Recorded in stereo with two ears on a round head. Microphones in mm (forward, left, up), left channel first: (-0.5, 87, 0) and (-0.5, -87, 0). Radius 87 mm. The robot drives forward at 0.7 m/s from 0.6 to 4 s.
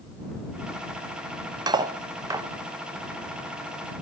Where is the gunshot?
I don't hear a gunshot.